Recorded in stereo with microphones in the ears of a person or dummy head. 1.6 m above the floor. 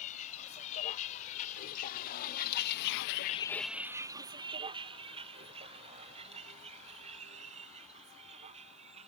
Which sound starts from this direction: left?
A vehicle, at 0.0 s.